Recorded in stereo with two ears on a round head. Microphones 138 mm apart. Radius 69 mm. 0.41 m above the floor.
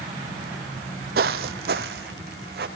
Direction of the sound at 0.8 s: 55° right (ahead or behind).